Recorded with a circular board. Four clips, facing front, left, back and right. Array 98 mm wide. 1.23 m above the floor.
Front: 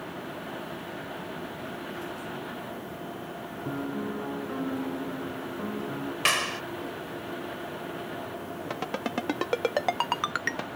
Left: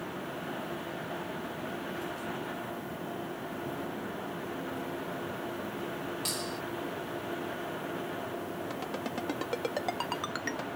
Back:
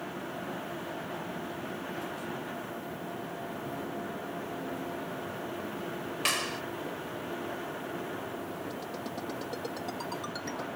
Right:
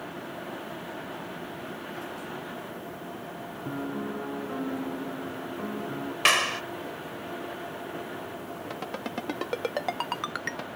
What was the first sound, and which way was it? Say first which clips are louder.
A piano: right 8 dB, front 9 dB; 45° right.